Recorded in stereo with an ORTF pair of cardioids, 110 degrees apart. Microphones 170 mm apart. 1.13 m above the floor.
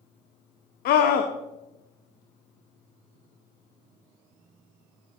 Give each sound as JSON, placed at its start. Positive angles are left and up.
{"t": 0.8, "sound": "a scream", "azimuth_deg": 70, "distance_m": 1.2}